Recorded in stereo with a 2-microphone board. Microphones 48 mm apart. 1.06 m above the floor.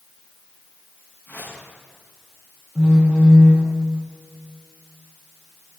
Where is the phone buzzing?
15° left (ahead or behind), 8 m.